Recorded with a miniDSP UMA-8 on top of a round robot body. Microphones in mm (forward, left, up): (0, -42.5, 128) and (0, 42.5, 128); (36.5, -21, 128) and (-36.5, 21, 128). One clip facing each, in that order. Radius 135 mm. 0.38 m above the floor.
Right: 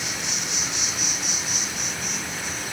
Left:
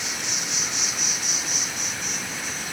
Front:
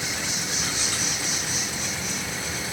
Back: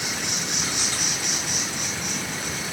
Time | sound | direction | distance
0.0 | an insect | straight behind | 5.5 m